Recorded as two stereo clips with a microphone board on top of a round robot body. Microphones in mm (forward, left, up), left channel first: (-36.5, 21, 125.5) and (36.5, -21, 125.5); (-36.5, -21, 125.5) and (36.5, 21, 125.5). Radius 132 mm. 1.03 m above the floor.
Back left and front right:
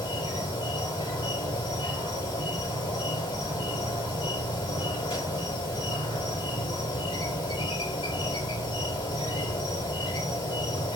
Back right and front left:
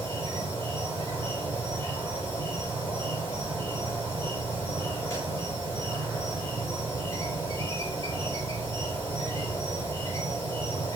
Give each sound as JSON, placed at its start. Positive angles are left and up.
{"t": 0.0, "sound": "an insect", "azimuth_deg": 150, "distance_m": 4.0}